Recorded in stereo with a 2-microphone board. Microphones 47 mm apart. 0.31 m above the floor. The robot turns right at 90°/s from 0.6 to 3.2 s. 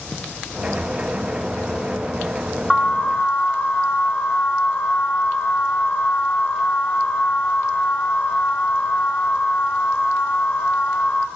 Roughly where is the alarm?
Ahead.